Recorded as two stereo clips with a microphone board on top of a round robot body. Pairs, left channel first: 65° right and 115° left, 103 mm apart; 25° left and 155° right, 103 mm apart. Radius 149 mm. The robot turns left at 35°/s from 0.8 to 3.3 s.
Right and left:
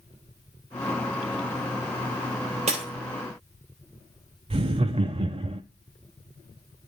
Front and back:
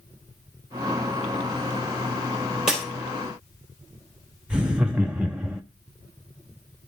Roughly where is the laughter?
Behind left.